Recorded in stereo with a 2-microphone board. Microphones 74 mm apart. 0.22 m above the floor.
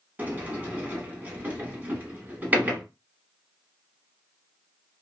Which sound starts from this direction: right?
A sliding door, at 0.2 s.